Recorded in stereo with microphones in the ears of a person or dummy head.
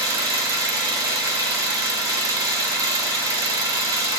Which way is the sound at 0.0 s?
15° right (ahead or behind).